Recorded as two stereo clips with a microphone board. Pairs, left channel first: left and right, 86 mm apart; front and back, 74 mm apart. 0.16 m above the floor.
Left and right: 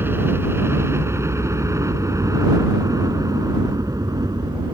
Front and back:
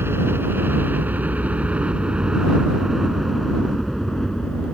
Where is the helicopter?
140° right; by 4.8 s 75° right.